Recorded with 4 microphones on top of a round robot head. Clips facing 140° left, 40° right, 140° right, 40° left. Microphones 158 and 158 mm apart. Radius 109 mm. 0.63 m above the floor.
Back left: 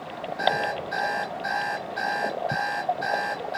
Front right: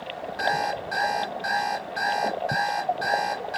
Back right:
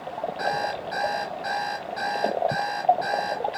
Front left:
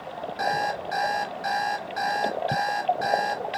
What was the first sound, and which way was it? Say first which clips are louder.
An alarm clock: back left 1 dB, front left 3 dB; straight ahead.